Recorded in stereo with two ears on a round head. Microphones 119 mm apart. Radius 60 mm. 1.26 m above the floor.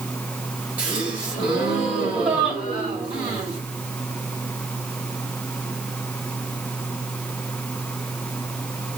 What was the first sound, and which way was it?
A gasp, 10° right (ahead or behind).